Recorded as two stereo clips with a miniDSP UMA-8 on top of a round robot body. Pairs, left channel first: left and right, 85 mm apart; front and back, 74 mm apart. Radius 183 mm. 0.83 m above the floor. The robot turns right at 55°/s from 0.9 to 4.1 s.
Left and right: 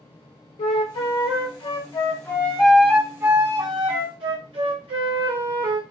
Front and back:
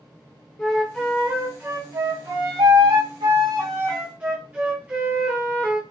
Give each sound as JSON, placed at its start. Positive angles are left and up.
{"t": 0.6, "sound": "a flute", "azimuth_deg": 75, "distance_m": 0.5}